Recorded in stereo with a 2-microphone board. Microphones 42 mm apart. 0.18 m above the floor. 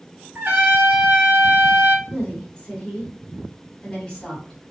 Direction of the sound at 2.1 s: 15° left (ahead or behind).